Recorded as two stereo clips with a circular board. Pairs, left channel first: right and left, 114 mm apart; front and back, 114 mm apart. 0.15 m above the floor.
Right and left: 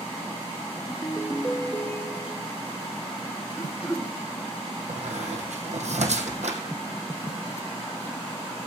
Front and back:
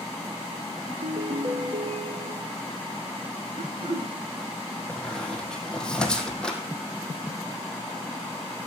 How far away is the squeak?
About 1.9 m.